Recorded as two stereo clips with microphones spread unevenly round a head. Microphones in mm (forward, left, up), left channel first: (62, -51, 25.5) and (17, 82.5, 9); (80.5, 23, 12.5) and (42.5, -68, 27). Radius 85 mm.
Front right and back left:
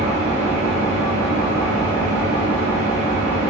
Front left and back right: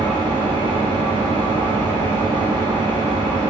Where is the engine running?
95° right, 1.6 m.